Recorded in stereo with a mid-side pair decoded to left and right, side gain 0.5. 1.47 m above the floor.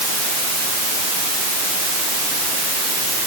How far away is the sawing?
I don't hear sawing.